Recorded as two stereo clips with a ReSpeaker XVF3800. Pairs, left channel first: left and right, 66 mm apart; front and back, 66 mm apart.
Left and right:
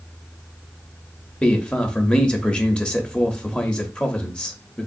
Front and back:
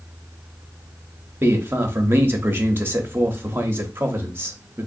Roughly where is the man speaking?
Behind left.